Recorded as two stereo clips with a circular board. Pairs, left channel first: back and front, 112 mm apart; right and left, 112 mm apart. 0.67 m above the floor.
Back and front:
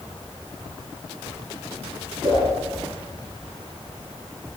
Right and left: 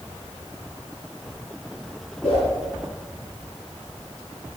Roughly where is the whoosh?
Ahead right.